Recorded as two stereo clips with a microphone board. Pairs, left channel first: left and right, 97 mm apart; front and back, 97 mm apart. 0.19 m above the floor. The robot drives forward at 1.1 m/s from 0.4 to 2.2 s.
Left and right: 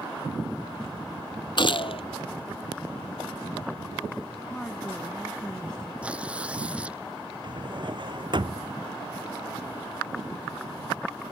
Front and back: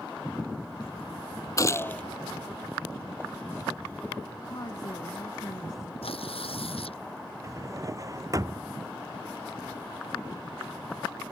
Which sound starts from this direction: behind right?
A drawer, at 7.4 s.